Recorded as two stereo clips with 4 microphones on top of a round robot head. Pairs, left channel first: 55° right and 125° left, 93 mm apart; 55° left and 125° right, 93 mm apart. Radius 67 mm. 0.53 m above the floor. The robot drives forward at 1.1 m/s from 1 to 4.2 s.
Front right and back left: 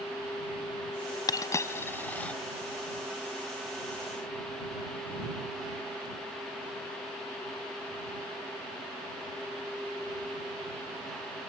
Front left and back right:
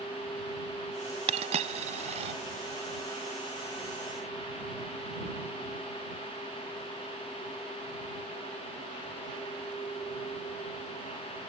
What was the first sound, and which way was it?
A dropped coin, 105° right.